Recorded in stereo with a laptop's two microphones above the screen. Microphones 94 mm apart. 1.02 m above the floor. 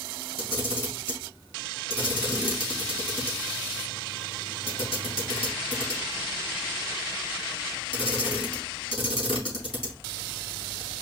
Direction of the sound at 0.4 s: 70° left (ahead or behind).